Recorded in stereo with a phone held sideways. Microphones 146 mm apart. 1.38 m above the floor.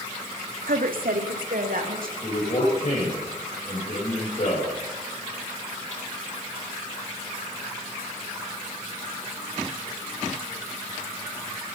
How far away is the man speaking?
About 5.5 m.